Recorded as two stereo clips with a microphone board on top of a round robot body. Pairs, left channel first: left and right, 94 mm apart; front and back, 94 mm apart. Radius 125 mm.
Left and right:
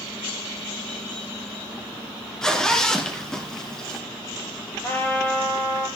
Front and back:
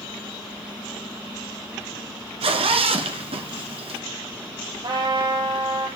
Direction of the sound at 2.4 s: 175° left.